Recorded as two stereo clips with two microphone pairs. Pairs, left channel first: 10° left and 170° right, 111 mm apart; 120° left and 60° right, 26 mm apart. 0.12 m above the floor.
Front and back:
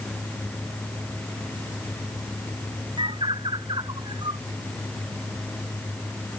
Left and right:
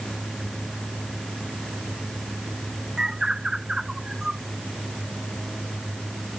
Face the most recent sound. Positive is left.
turn(degrees=-125)